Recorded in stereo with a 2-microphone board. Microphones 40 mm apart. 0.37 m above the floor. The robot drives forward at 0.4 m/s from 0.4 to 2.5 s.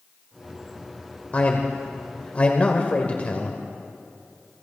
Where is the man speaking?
35° left (ahead or behind), 1.2 m.